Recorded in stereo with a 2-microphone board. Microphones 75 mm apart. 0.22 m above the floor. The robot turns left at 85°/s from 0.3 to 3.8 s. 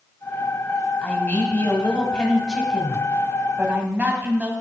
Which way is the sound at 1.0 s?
15° left (ahead or behind).